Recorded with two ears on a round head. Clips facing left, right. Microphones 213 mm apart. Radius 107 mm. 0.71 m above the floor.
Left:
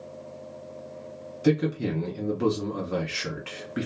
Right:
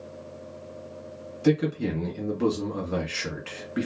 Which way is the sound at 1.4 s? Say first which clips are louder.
Even; centre (ahead or behind).